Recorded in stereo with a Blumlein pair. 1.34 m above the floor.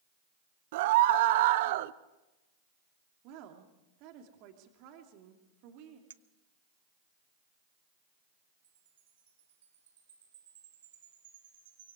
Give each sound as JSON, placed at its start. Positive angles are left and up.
{"t": 0.7, "sound": "a scream", "azimuth_deg": -50, "distance_m": 1.2}
{"t": 3.2, "sound": "a woman speaking", "azimuth_deg": -40, "distance_m": 3.0}
{"t": 6.1, "sound": "a clink", "azimuth_deg": -65, "distance_m": 0.6}
{"t": 8.6, "sound": "a chime", "azimuth_deg": -60, "distance_m": 3.0}